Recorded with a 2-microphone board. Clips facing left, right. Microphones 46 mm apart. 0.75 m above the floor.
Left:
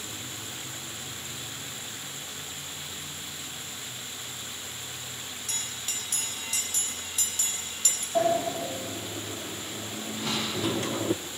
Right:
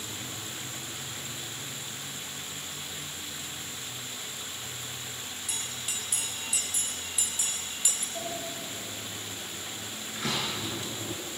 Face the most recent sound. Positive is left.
turn(degrees=-80)